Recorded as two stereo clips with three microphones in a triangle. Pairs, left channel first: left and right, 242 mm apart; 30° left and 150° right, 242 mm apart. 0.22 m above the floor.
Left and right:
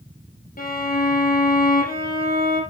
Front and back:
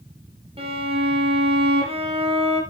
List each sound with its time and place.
0.6 s a violin: 145° left, 5 m